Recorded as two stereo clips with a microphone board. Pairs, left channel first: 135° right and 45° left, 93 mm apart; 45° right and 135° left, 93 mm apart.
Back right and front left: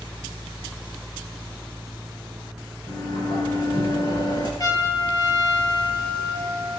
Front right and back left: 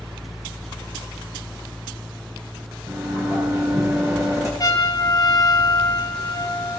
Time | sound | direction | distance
2.9 | a sliding door | 175° right | 9 m
4.6 | a trumpet | 90° right | 2.5 m